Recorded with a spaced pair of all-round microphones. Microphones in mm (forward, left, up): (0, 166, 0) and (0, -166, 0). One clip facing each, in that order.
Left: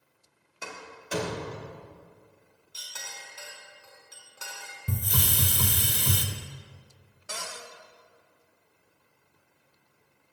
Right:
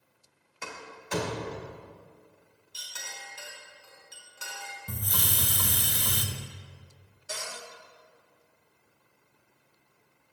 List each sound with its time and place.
0.6 s a door slam: centre (ahead or behind), 2 m
2.7 s a clink: centre (ahead or behind), 3 m
4.9 s a hiss: 35° left (ahead or behind), 0.6 m
7.3 s a cupboard door: 70° left (ahead or behind), 0.9 m